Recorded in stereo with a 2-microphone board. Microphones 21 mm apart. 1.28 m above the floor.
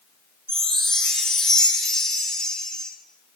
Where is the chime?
50° left (ahead or behind), 1.3 m.